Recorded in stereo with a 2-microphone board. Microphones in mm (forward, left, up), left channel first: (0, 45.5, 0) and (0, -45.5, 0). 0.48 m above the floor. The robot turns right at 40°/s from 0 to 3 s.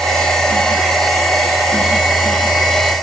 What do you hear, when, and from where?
Only background noise.